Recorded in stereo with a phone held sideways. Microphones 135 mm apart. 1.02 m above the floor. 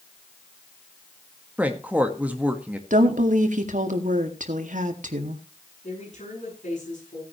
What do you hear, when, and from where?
1.6 s a woman speaking: 10° right (ahead or behind), 1.5 m
2.9 s a woman speaking: 70° right (ahead or behind), 2 m
5.8 s a woman speaking: 60° left (ahead or behind), 9 m